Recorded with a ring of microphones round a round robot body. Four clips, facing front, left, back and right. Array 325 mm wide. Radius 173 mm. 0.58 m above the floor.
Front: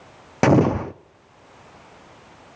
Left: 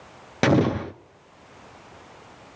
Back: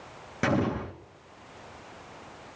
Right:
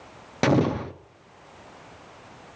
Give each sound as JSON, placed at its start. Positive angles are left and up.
{"t": 0.4, "sound": "an explosion", "azimuth_deg": 15, "distance_m": 0.6}